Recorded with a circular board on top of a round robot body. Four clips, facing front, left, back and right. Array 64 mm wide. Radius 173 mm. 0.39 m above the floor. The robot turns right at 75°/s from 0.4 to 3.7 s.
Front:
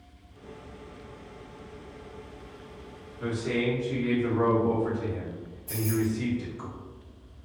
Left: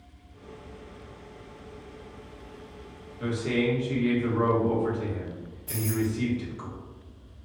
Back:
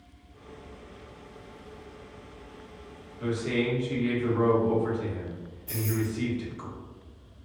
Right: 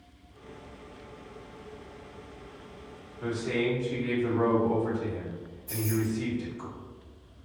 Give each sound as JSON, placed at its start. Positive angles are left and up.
{"t": 3.2, "sound": "a man speaking", "azimuth_deg": 95, "distance_m": 1.6}
{"t": 5.7, "sound": "keys jangling", "azimuth_deg": 100, "distance_m": 1.4}